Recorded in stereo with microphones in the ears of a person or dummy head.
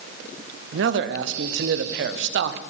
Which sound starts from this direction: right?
A man speaking, at 0.7 s.